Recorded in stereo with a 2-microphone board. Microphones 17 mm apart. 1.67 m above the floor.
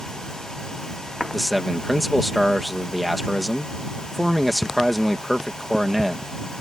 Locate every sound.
1.3 s a man speaking: 5° right (ahead or behind)